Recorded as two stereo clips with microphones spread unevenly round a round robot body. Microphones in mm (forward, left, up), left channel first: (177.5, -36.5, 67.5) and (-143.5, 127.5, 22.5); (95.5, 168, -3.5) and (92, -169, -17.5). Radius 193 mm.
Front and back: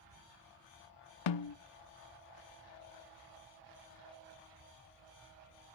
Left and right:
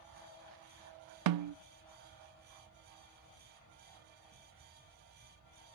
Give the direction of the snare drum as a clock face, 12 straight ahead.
2 o'clock.